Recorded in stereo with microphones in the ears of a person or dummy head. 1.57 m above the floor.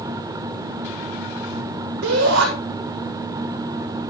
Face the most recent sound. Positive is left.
turn(degrees=-60)  # may be behind; listen again after turning